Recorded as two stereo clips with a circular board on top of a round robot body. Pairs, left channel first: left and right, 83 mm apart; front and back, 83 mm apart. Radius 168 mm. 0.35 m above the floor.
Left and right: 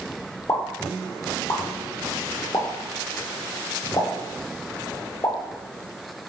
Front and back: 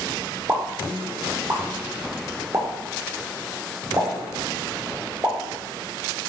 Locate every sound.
0.5 s a pop: 130° left, 1.5 m